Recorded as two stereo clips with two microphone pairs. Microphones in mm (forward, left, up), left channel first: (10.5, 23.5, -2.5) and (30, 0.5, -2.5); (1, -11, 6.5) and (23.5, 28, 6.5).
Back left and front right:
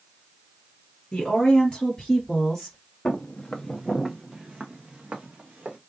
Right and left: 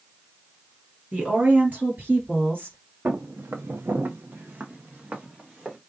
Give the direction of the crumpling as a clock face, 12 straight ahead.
I don't hear crumpling.